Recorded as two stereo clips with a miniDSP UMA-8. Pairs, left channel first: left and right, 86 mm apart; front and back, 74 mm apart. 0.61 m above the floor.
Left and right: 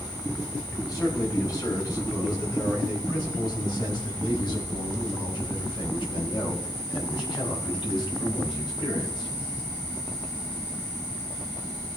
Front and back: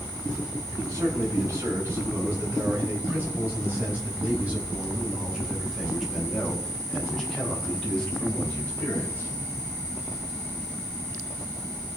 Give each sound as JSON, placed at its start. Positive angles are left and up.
{"t": 0.7, "sound": "a man speaking", "azimuth_deg": 135, "distance_m": 5.0}